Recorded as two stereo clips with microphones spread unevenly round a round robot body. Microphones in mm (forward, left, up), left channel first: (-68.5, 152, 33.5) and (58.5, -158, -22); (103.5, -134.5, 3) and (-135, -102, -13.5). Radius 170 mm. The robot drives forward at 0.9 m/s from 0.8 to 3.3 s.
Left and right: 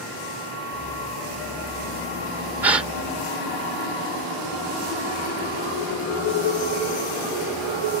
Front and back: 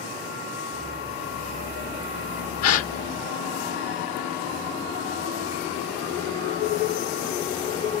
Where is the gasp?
10° left; by 2.9 s 15° left.